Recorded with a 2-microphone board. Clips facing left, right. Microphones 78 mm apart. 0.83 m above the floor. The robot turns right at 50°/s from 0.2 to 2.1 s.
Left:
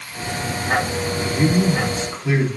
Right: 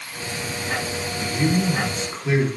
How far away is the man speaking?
About 1.8 m.